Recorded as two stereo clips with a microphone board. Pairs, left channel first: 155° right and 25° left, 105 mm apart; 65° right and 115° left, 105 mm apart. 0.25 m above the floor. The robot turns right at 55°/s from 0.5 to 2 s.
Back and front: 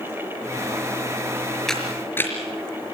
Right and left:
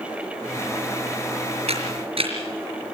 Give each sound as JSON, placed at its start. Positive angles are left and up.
{"t": 1.7, "sound": "a camera shutter", "azimuth_deg": 115, "distance_m": 4.5}